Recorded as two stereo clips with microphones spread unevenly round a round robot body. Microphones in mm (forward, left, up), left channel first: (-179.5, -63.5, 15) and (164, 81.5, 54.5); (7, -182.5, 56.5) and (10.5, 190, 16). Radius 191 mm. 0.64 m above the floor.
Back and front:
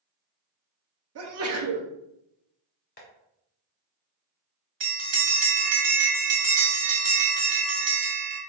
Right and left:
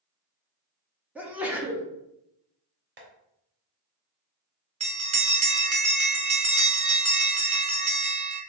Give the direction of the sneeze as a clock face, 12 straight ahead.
11 o'clock.